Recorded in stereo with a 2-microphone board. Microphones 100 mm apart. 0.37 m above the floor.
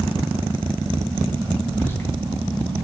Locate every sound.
1.7 s whispering: 20° left (ahead or behind), 2.5 m